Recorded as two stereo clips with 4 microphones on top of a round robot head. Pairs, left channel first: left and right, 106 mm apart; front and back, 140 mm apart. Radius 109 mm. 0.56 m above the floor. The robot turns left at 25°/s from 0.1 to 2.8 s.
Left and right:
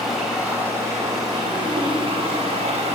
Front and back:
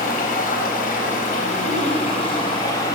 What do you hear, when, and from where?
0.0 s running water: straight ahead, 3.5 m; by 3.0 s 70° right, 3.5 m